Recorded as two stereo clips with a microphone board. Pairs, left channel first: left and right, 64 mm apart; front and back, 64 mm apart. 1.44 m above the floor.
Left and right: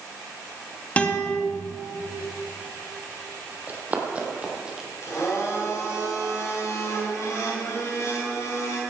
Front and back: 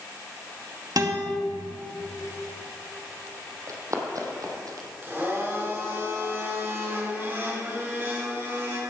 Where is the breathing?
No breathing in this recording.